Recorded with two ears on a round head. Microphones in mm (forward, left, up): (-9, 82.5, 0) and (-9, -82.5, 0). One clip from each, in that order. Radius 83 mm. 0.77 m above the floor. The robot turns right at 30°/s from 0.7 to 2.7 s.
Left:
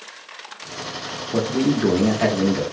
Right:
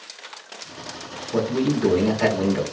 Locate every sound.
1.3 s a man speaking: 145° left, 1.1 m; by 2.6 s 175° right, 1.1 m